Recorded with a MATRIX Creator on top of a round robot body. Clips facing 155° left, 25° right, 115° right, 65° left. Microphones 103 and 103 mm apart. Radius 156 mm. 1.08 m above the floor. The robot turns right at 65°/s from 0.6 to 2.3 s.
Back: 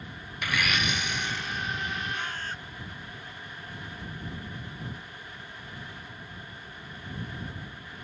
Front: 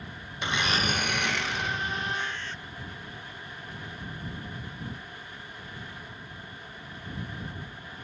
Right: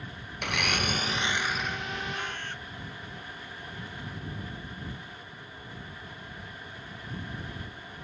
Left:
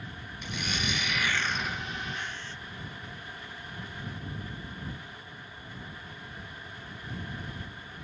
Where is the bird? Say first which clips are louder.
Front 1 dB, right 3 dB; 165° right; by 2.6 s 150° right.